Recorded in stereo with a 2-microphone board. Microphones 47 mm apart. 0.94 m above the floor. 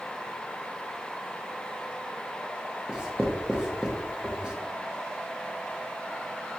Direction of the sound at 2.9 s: 20° right (ahead or behind).